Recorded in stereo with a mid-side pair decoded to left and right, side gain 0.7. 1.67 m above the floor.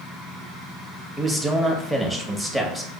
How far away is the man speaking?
About 1.1 m.